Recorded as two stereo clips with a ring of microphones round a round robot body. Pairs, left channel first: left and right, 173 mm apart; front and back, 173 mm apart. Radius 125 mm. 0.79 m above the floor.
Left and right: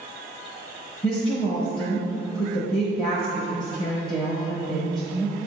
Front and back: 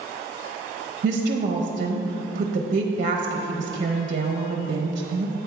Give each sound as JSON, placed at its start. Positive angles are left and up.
{"t": 1.0, "sound": "a woman speaking", "azimuth_deg": 150, "distance_m": 0.8}